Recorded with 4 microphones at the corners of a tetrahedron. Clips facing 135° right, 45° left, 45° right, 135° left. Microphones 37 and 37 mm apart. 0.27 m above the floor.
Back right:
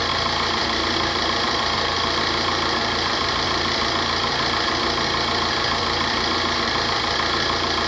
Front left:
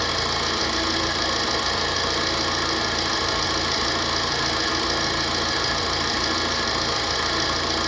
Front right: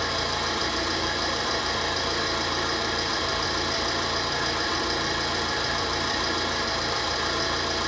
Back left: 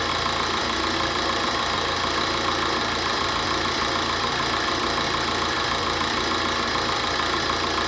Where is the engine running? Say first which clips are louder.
Back right 2 dB, back left 3 dB; 165° left, 1.8 m.